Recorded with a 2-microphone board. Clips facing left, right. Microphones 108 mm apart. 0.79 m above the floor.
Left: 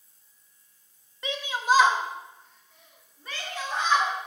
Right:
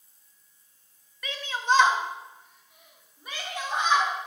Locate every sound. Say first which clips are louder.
1.2 s a shout: left 2 dB; 25° left (ahead or behind), 0.6 m; by 4.1 s 20° right (ahead or behind), 2 m